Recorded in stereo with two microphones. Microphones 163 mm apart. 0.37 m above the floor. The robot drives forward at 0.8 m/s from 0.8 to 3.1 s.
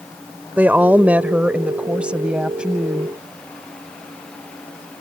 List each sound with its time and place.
0.6 s a woman speaking: 10° right (ahead or behind); by 3.1 s 5° right (ahead or behind)